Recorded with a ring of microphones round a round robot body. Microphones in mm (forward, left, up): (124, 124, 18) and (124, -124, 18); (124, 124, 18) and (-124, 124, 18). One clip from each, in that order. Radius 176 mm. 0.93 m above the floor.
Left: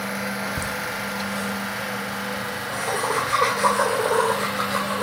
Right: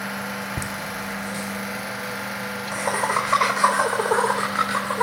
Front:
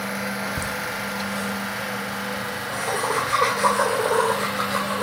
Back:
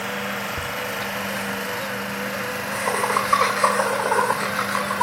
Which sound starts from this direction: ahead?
Laughter, at 0.6 s.